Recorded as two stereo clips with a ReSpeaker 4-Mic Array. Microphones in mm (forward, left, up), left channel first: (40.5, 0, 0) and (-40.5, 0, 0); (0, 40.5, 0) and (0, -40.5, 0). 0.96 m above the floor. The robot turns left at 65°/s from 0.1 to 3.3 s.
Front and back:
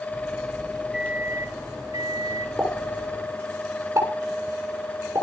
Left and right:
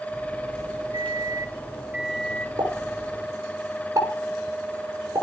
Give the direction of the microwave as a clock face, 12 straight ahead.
3 o'clock.